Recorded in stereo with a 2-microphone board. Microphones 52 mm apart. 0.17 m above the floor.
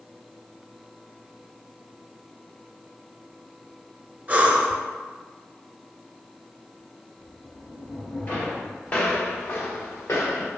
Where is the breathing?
30° right (ahead or behind), 0.6 m.